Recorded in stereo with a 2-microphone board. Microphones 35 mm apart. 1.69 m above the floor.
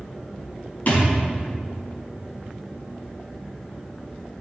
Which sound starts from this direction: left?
A thud, at 0.9 s.